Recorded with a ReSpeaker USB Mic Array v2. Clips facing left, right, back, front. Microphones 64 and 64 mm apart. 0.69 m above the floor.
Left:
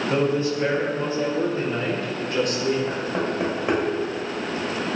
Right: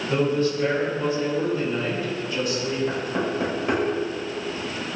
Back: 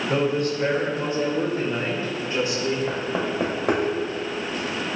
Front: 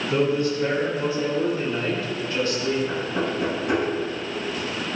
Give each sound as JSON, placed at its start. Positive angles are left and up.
{"t": 0.1, "sound": "a man speaking", "azimuth_deg": 160, "distance_m": 3.0}
{"t": 2.9, "sound": "knocking", "azimuth_deg": 160, "distance_m": 2.5}